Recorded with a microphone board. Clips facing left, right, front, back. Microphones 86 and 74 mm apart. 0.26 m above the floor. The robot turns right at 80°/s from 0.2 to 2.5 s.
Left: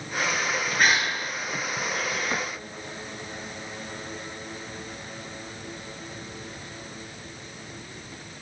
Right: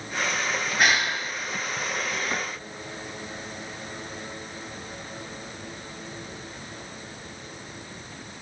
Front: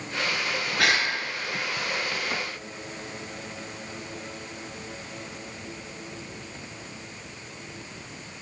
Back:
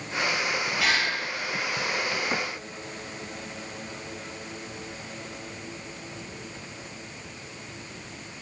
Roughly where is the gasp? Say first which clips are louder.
Even, front 3 dB; ahead.